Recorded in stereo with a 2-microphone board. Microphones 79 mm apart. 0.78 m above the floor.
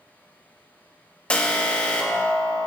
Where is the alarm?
15° left (ahead or behind), 1.3 m.